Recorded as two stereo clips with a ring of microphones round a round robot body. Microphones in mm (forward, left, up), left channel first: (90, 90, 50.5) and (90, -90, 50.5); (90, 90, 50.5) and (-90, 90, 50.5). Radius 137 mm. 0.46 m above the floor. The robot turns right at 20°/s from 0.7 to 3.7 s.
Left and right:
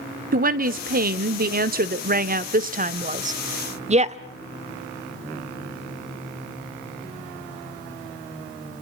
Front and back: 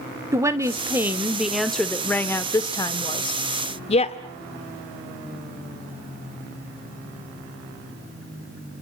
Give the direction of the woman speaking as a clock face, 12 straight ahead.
4 o'clock.